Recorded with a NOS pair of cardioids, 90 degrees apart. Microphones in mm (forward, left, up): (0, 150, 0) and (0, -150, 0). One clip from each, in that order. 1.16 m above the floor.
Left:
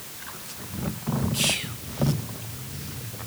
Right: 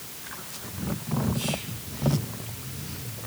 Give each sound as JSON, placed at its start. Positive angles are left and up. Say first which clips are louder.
{"t": 1.3, "sound": "whispering", "louder": "left 6 dB", "azimuth_deg": 70, "distance_m": 0.7}